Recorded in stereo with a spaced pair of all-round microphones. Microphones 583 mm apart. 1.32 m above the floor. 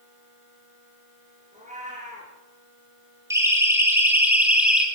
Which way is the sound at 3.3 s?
5° right (ahead or behind).